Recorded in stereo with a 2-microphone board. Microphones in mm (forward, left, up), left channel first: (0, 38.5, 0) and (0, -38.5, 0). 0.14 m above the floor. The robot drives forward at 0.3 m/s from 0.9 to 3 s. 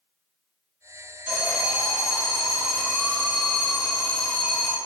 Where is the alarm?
10° right (ahead or behind), 1.7 m.